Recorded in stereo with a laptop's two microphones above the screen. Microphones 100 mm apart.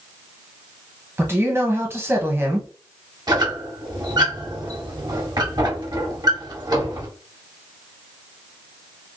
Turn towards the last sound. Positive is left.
turn(degrees=-45)  # may be behind; listen again after turning